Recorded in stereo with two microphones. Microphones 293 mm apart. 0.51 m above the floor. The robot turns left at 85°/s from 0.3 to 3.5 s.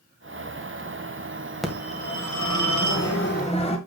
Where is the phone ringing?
Straight behind, 2 m; by 3.8 s 20° left, 2 m.